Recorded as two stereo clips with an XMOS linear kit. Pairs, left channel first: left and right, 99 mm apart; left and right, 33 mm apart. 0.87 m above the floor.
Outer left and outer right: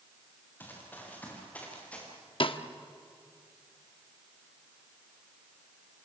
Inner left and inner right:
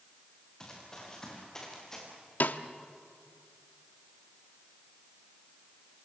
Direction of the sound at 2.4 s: 60° left (ahead or behind).